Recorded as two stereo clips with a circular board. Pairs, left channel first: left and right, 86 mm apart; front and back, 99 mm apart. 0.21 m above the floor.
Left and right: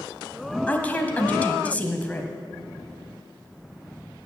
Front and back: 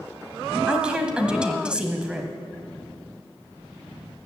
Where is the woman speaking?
120° left, 1.3 m.